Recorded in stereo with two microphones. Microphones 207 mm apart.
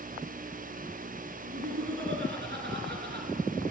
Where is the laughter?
70° right (ahead or behind), 3 m; by 3.3 s 55° right (ahead or behind), 3.5 m.